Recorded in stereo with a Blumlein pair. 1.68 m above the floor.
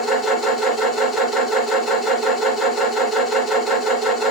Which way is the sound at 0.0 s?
10° left.